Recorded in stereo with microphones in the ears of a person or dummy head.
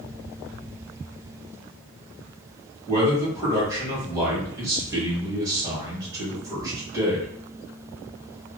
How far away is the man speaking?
About 1.4 m.